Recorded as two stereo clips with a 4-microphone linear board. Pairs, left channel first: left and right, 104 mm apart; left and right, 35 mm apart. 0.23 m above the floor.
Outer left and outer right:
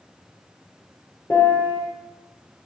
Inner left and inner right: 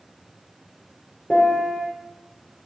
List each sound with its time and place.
1.3 s a piano: 35° left (ahead or behind), 4.5 m